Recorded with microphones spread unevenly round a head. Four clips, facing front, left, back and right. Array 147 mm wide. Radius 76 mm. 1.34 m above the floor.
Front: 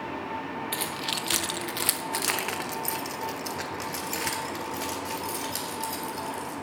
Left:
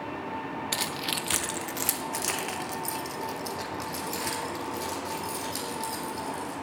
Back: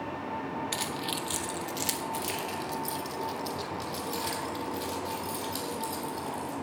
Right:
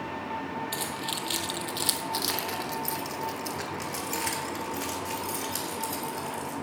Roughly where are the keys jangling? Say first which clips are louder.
Left 1 dB, front 1 dB; left.